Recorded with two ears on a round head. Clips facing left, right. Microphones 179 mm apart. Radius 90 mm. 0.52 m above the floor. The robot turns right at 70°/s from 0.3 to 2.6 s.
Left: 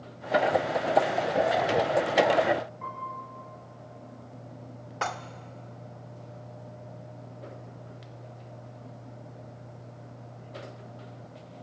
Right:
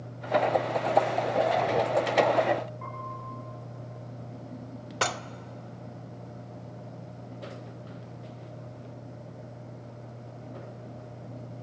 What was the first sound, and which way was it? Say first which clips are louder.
A piano: even; centre (ahead or behind).